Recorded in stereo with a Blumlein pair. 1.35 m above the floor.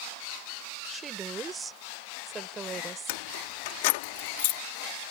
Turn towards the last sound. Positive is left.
turn(degrees=50)